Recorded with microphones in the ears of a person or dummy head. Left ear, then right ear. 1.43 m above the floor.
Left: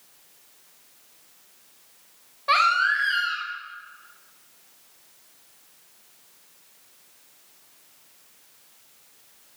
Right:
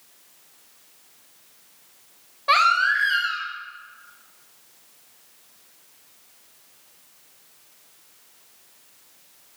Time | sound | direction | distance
2.5 | a baby crying | 5° right (ahead or behind) | 0.8 m